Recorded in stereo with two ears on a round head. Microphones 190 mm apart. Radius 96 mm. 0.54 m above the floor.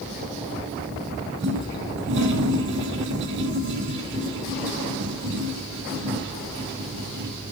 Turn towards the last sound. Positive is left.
turn(degrees=-55)  # may be behind; listen again after turning